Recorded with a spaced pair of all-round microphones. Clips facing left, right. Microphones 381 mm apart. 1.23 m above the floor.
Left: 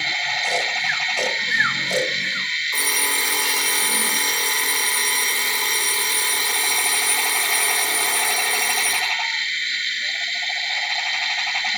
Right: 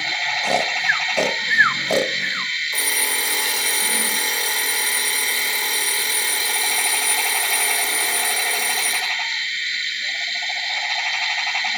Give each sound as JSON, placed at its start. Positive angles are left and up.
{"t": 0.4, "sound": "snoring", "side_deg": -70, "distance_m": 0.8}
{"t": 2.7, "sound": "an alarm clock", "side_deg": 10, "distance_m": 10.0}